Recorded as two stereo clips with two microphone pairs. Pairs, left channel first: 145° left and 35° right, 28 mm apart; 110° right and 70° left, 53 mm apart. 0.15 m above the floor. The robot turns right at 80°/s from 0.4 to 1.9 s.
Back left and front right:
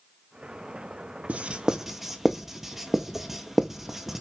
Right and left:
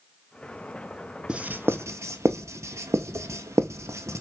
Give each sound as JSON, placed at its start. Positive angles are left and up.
{"t": 1.3, "sound": "writing", "azimuth_deg": 0, "distance_m": 0.6}